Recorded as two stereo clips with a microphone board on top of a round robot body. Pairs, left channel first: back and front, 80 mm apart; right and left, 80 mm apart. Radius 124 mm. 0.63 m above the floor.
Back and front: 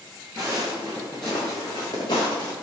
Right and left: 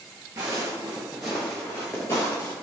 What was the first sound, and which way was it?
Footsteps, 35° left.